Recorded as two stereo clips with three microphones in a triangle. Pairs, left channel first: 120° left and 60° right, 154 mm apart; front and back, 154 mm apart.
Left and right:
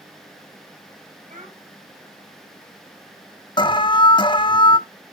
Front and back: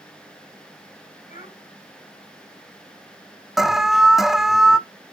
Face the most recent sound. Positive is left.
turn(degrees=95)